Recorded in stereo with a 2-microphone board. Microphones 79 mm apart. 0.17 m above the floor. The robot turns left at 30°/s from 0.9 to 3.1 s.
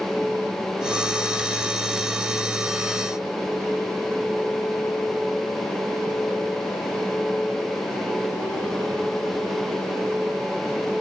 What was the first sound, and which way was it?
Only background noise.